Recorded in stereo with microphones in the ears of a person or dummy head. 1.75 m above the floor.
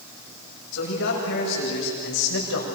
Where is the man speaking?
65° left (ahead or behind), 7.5 m; by 2.6 s 70° left (ahead or behind), 6 m.